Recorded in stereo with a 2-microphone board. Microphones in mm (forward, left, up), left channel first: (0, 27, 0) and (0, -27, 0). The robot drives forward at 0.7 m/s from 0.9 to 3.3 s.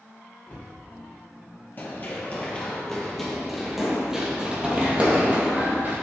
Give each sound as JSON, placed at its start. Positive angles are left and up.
{"t": 0.5, "sound": "a cupboard door", "side_deg": 30, "distance_m": 3.0}
{"t": 1.8, "sound": "running footsteps", "side_deg": 40, "distance_m": 1.8}